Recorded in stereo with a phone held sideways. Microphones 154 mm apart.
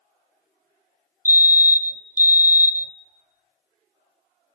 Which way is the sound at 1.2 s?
15° right (ahead or behind).